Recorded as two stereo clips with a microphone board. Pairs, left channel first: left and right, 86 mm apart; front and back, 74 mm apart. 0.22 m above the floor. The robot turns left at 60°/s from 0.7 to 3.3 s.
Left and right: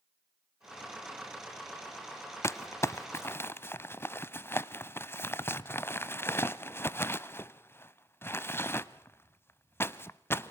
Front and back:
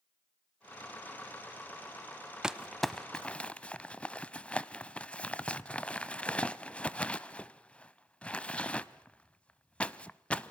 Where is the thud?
No thud in this recording.